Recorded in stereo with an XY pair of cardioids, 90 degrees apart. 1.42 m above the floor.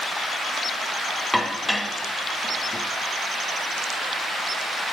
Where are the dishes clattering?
Straight ahead, 1.4 m.